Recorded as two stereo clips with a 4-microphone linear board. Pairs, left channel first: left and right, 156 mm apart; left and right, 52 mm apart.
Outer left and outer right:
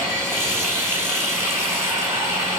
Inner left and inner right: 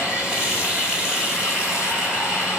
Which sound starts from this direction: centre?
Running water, at 0.0 s.